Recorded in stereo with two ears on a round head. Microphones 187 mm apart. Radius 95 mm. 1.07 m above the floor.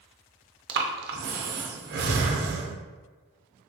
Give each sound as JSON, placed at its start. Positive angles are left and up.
{"t": 0.7, "sound": "breathing", "side_deg": -50, "distance_m": 0.5}